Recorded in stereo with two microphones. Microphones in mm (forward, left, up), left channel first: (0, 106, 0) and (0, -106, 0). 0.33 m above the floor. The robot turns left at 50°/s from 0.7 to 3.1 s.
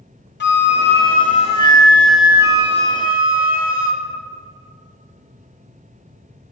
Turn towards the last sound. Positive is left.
turn(degrees=-50)